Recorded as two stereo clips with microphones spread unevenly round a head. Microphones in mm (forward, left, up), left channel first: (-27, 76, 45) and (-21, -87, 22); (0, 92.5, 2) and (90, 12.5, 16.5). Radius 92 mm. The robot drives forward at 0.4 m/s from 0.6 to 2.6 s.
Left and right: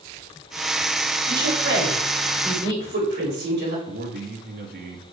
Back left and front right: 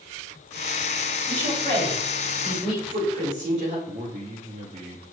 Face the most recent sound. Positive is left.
turn(degrees=-90)